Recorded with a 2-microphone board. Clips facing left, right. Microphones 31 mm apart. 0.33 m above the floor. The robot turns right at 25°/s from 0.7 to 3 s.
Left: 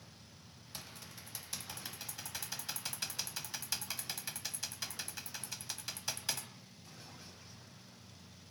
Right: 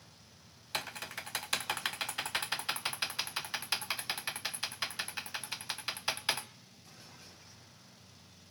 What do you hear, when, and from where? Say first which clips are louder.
0.7 s typing on a keyboard: right 12 dB; 75° right (ahead or behind), 0.5 m; by 6.5 s 35° right (ahead or behind), 0.5 m